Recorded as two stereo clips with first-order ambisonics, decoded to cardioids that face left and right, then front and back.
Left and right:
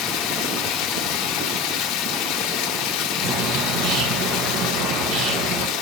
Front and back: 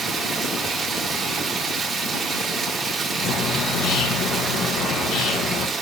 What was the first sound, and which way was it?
Running water, 115° left.